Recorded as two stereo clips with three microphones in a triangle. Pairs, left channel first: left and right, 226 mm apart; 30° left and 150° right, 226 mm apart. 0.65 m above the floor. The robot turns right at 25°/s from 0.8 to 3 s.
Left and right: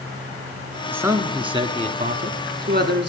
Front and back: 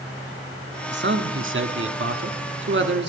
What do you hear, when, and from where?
0.9 s a man speaking: 170° right, 1.1 m; by 3.1 s 120° right, 1.1 m